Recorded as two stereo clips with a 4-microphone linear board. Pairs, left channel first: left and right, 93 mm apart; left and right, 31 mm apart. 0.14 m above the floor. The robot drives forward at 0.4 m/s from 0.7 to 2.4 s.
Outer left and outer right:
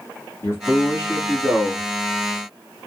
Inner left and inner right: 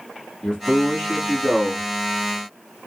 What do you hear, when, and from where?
0.4 s a man speaking: 30° left (ahead or behind), 1.3 m; by 1.9 s 25° left (ahead or behind), 1.4 m